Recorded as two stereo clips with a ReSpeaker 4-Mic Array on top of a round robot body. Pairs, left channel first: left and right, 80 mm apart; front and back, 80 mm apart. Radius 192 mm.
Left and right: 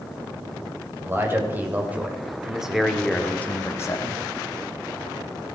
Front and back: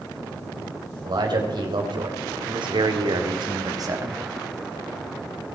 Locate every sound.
1.1 s a man speaking: 155° right, 3.5 m; by 4.2 s 125° left, 1.7 m